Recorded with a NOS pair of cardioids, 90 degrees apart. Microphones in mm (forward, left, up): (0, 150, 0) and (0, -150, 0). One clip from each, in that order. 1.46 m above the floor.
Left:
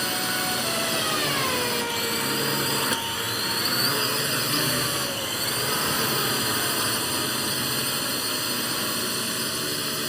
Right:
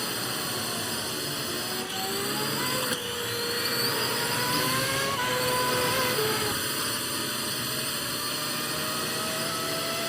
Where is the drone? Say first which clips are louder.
Left 5 dB; 40° left.